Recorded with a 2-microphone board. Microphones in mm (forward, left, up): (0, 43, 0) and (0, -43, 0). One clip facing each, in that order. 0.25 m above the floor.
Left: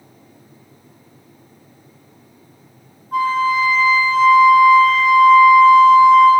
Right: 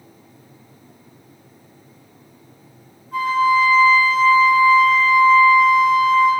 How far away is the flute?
About 2.5 m.